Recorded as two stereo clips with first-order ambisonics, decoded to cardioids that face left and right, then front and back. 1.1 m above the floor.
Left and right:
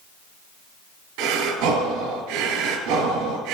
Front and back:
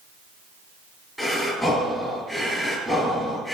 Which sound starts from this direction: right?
Breathing, at 1.2 s.